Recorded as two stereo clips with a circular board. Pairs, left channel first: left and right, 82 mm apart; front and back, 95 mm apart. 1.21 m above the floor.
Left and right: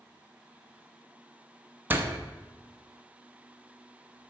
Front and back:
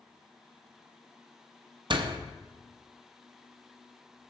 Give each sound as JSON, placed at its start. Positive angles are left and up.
{"t": 1.9, "sound": "a door slam", "azimuth_deg": -155, "distance_m": 0.8}